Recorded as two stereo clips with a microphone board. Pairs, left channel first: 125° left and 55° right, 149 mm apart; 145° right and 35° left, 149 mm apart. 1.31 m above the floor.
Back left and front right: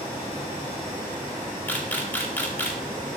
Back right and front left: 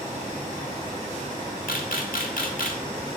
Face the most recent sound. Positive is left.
turn(degrees=-160)